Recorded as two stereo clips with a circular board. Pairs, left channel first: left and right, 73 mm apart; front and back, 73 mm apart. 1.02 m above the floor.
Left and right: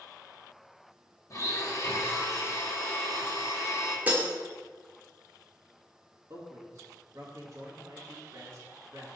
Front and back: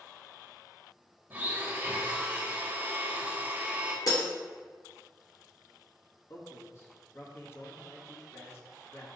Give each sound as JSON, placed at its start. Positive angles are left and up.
{"t": 1.3, "sound": "a blender", "azimuth_deg": 120, "distance_m": 1.2}
{"t": 4.1, "sound": "breaking glass", "azimuth_deg": -25, "distance_m": 1.4}
{"t": 6.3, "sound": "a man speaking", "azimuth_deg": -50, "distance_m": 1.7}